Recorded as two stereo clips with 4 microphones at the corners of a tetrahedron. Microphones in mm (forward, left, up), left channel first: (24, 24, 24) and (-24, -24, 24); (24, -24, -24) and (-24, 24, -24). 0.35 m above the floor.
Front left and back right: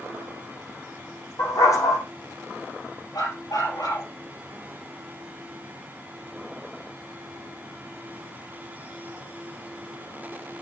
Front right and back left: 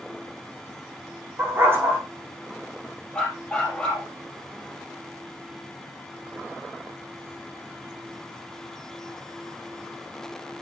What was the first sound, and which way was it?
A dog barking, 80° left.